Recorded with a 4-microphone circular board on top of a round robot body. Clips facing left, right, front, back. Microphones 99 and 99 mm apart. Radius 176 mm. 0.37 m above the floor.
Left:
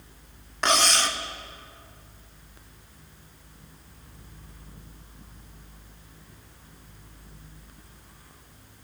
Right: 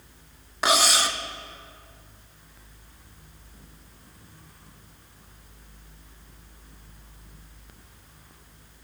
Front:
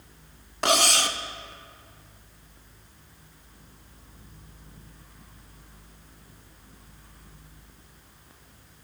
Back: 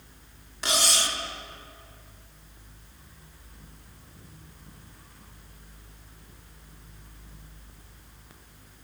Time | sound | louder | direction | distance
0.6 | cutlery clinking | right 1 dB, front 5 dB | 10° right | 0.8 m